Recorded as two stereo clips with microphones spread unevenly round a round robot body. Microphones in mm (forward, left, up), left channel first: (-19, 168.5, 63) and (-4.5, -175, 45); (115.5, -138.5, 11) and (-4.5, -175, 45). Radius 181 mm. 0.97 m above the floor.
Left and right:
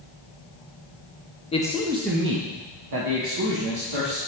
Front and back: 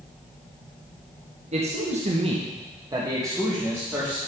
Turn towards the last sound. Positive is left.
turn(degrees=-80)